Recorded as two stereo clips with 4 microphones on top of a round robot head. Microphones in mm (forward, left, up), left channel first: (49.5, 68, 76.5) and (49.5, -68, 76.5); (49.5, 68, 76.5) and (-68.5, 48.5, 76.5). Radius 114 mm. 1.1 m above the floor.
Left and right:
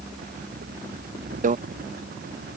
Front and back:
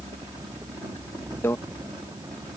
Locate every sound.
1.4 s a microwave: 65° right